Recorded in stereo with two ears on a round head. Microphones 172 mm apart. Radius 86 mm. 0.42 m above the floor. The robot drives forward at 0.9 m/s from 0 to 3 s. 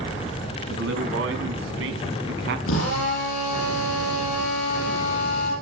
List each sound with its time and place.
0.7 s a man speaking: 75° right (ahead or behind), 3.5 m; by 2.6 s 65° right (ahead or behind), 3.5 m
2.7 s a drill: 75° left (ahead or behind), 9 m; by 5.5 s 70° left (ahead or behind), 9 m